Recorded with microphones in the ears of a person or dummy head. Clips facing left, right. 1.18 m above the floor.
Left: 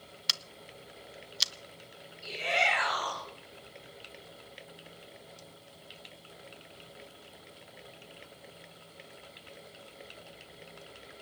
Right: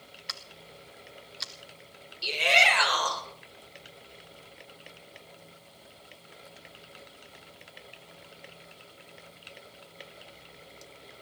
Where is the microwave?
No microwave in this recording.